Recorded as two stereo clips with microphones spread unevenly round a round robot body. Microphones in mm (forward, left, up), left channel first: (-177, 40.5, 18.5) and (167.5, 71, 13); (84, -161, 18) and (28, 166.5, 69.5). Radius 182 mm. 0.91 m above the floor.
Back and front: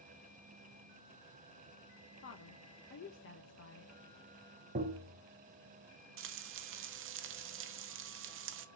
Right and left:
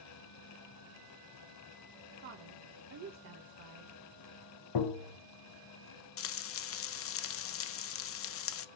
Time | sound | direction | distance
2.2 | a woman speaking | 145° left | 1.1 m
4.8 | tapping | 65° right | 0.7 m
6.2 | frying | 45° right | 0.5 m